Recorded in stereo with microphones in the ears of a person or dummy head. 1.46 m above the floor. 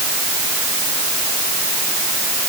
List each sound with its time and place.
Only background noise.